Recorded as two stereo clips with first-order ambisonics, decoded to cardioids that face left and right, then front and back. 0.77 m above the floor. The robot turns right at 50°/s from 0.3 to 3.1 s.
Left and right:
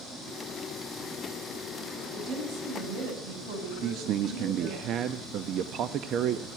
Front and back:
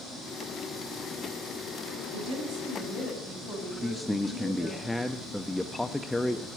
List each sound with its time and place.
2.1 s a woman speaking: 160° right, 5.5 m; by 4.8 s 110° right, 5.5 m
3.8 s a man speaking: 85° right, 0.6 m